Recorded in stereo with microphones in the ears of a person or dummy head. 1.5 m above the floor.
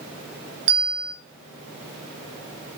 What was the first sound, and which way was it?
A bell, 30° right (ahead or behind).